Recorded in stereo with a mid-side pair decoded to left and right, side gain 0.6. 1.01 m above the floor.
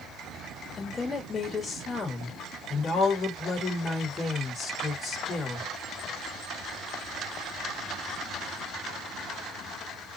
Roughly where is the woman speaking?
Ahead left.